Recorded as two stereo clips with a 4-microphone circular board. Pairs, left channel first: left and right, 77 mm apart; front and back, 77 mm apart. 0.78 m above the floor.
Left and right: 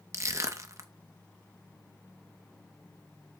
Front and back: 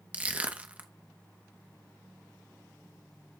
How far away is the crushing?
About 0.9 m.